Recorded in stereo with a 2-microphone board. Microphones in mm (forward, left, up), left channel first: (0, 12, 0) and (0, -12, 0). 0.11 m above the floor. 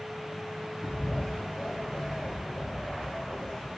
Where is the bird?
45° left (ahead or behind), 7 m.